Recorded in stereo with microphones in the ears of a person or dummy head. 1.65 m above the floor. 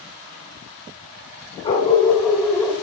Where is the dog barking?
35° left (ahead or behind), 2 m; by 2.7 s 5° right (ahead or behind), 1.6 m.